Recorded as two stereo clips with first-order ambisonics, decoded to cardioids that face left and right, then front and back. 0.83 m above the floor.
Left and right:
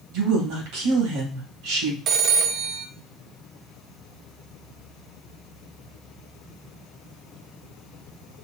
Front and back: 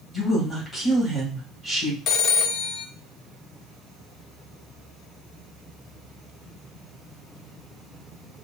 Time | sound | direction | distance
0.1 | a woman speaking | 75° right | 2.5 m
2.1 | a phone ringing | 40° right | 0.5 m